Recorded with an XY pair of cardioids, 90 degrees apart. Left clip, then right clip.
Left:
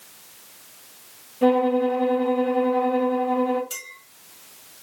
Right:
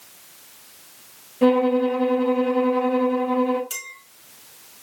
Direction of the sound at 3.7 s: 40° right.